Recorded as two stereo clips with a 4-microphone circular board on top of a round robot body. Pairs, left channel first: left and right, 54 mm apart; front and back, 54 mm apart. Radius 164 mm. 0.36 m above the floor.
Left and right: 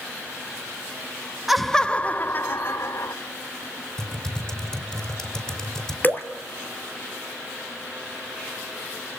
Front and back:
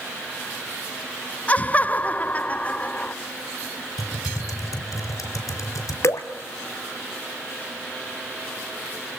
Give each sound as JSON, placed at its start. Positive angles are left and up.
{"t": 1.5, "sound": "laughter", "azimuth_deg": -10, "distance_m": 0.8}
{"t": 4.0, "sound": "typing on a keyboard", "azimuth_deg": 15, "distance_m": 5.5}
{"t": 6.0, "sound": "dripping", "azimuth_deg": 35, "distance_m": 1.7}